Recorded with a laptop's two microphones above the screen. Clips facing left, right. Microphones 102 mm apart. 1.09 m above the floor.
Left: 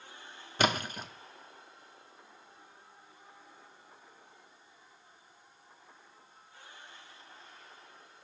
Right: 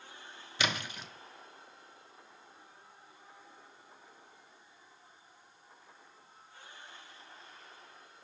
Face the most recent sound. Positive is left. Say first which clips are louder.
# left 6 dB
turn(degrees=45)  # may be behind; listen again after turning